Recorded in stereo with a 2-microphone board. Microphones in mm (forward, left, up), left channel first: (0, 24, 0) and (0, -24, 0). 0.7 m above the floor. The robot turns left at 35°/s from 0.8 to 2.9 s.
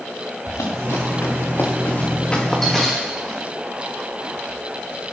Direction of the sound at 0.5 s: 80° left.